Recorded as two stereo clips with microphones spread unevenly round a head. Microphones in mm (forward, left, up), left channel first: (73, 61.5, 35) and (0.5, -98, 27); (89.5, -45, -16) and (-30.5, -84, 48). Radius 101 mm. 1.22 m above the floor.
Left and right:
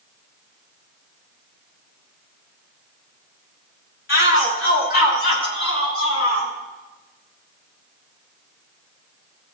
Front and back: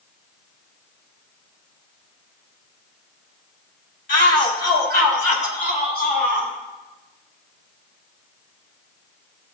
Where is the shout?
45° left, 4 m; by 6.5 s 80° left, 5.5 m.